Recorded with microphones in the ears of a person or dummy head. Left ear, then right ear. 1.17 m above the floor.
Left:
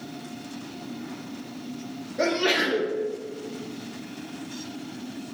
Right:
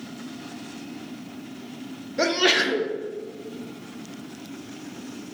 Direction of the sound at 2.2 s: 25° right (ahead or behind).